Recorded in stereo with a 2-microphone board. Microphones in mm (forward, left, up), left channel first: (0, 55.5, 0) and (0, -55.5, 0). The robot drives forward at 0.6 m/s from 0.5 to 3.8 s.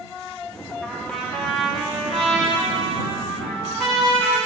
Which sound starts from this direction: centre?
A trumpet, at 0.8 s.